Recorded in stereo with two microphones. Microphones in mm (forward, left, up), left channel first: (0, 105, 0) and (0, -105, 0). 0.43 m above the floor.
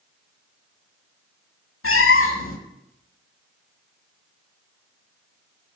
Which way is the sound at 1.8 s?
85° left.